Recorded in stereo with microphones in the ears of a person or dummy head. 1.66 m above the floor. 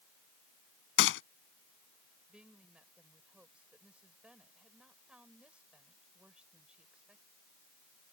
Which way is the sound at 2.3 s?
10° right (ahead or behind).